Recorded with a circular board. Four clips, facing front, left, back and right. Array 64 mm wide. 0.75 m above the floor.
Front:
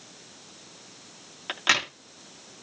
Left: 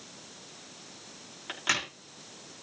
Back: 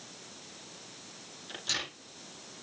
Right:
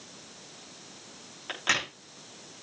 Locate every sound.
1.5 s a crack: 5° right, 5 m